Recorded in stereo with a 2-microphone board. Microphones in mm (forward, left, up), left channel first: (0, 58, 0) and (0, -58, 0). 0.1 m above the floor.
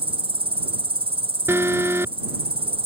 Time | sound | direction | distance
0.0 | an insect | 50° right (ahead or behind) | ?
1.5 | an alarm | 20° right (ahead or behind) | ?